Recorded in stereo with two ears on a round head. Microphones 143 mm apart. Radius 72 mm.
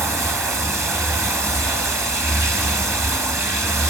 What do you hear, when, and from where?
0.0 s running water: 20° right (ahead or behind), 0.8 m